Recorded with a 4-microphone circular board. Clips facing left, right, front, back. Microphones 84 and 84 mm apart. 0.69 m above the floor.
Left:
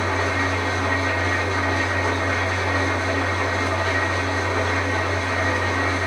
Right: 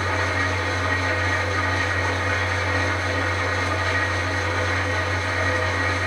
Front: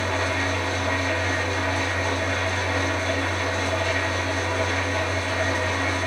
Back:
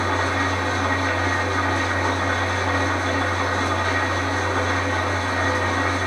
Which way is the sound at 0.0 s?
150° left.